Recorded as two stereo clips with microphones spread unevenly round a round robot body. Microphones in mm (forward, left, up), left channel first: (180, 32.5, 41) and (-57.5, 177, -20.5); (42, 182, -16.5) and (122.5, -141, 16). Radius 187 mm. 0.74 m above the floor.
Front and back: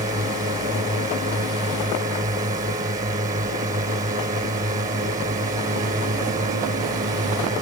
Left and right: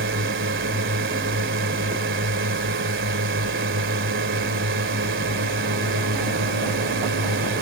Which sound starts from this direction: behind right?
A drone, at 0.0 s.